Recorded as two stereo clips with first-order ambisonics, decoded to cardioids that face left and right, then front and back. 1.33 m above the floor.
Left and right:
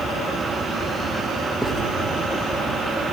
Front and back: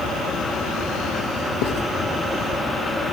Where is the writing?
5° right, 1.7 m.